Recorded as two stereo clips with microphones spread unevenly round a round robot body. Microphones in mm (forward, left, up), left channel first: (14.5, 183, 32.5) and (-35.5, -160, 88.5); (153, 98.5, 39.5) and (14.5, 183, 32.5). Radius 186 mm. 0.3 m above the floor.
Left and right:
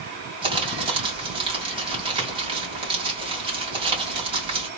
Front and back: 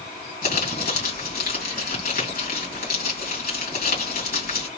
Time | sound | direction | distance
0.4 | crumpling | 20° right | 2.5 m